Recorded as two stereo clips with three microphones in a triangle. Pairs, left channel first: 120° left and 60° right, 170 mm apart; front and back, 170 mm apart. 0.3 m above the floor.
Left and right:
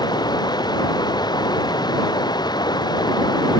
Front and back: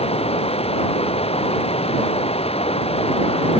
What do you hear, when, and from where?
0.0 s running water: 55° left